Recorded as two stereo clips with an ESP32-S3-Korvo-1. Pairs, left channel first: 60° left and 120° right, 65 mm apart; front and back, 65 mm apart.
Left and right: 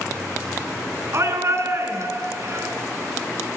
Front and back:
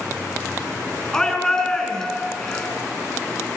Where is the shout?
80° right, 4.5 m.